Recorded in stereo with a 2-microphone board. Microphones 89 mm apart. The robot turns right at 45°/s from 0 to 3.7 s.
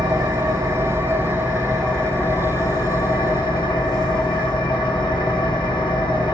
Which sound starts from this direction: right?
An engine running, at 0.0 s.